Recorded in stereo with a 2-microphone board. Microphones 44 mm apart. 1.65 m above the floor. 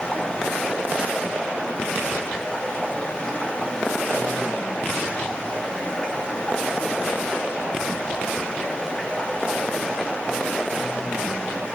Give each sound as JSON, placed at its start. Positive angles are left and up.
{"t": 0.0, "sound": "running water", "side_deg": 20, "distance_m": 1.7}